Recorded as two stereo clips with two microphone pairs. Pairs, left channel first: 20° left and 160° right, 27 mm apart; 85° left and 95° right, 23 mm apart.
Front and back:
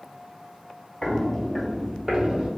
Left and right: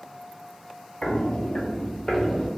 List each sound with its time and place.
1.0 s footsteps: 75° left, 0.7 m; by 2.5 s 155° left, 1.1 m